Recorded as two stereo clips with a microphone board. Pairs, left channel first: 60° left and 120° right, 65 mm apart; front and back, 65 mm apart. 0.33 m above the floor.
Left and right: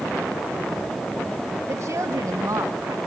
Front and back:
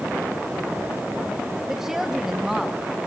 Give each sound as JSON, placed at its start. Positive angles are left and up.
{"t": 1.7, "sound": "a woman speaking", "azimuth_deg": -100, "distance_m": 1.3}